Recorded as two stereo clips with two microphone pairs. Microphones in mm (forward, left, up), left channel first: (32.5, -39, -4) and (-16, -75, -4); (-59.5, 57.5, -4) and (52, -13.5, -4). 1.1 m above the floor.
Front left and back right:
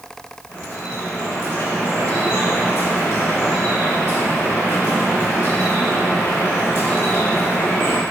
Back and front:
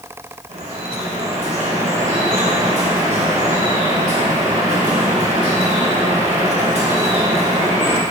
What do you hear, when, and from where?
0.5 s dripping: 10° right, 3.5 m